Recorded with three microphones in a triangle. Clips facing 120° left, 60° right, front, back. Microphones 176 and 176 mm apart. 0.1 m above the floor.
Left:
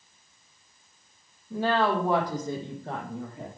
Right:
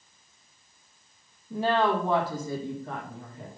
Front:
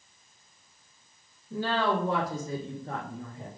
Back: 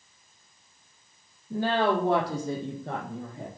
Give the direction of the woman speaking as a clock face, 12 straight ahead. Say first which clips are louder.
Even, back 3 dB; 5 o'clock.